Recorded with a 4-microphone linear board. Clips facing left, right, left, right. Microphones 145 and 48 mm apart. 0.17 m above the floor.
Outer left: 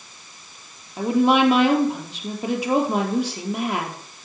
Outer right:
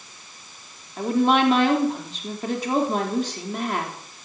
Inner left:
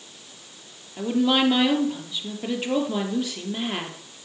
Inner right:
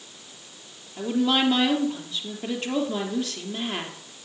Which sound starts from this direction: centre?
A woman speaking, at 1.0 s.